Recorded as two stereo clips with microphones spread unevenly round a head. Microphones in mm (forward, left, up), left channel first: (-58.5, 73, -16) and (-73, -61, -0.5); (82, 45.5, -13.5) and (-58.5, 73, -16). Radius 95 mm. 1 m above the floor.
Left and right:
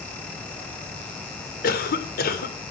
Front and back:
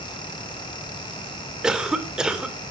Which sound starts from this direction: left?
A cough, at 1.6 s.